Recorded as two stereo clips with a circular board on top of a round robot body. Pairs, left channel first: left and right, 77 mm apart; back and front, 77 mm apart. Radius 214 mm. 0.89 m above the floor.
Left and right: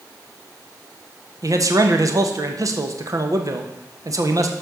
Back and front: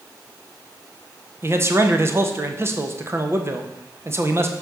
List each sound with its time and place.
1.4 s a man speaking: 55° right, 1.5 m